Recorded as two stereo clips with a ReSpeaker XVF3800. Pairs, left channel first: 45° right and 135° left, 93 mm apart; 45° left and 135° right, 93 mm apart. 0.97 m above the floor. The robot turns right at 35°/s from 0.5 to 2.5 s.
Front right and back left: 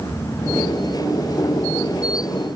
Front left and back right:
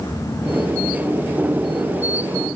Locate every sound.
Only background noise.